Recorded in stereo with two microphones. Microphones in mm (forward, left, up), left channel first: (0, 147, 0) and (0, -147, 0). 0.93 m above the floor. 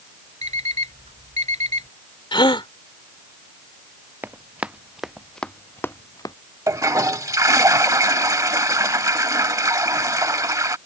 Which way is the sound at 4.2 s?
5° right (ahead or behind).